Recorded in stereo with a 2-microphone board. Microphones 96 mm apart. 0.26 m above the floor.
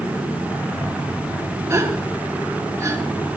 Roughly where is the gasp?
Right.